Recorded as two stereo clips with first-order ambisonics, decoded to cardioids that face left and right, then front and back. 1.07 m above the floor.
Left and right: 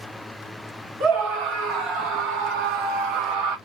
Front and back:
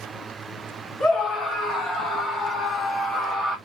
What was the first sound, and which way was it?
A scream, 55° right.